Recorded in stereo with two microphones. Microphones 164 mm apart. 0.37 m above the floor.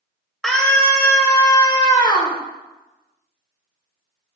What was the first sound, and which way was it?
A scream, centre (ahead or behind).